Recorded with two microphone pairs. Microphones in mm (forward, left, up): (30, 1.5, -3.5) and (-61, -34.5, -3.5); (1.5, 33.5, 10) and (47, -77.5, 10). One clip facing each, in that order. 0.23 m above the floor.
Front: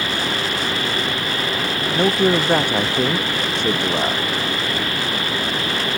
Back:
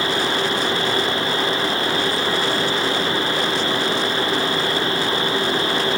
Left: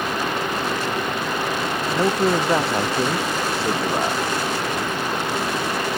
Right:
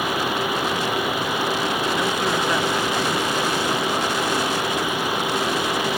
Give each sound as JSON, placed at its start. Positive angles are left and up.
{"t": 1.9, "sound": "a man speaking", "azimuth_deg": 55}